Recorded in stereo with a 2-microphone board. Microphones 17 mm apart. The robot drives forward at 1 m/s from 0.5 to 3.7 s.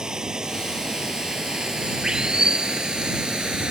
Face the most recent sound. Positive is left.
turn(degrees=-60)  # may be behind; listen again after turning